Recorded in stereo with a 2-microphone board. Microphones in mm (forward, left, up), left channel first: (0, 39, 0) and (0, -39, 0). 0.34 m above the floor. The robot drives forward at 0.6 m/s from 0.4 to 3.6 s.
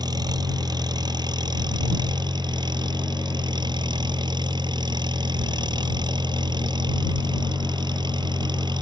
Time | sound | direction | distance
0.0 | an engine running | 65° right (ahead or behind) | ?